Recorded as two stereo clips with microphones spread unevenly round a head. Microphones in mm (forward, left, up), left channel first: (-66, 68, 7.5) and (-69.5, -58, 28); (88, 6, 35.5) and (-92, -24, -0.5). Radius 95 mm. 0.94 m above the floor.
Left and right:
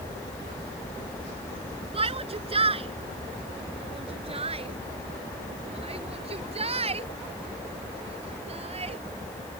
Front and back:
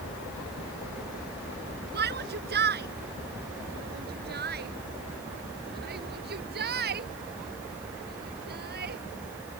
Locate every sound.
1.9 s a shout: 135° right; by 9.0 s 130° right